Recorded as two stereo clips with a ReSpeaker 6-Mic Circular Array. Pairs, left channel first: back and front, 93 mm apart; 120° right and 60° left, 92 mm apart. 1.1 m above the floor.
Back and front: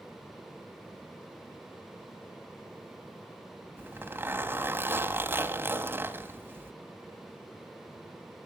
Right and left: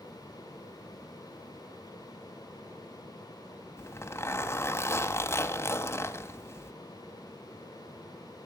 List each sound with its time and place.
3.8 s a zipper: 65° right, 1.6 m